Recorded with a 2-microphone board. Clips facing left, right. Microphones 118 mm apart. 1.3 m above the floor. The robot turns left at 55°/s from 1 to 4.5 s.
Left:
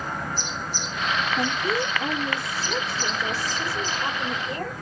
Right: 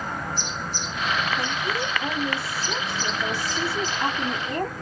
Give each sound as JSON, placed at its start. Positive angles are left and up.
{"t": 1.4, "sound": "a woman speaking", "azimuth_deg": 55, "distance_m": 3.0}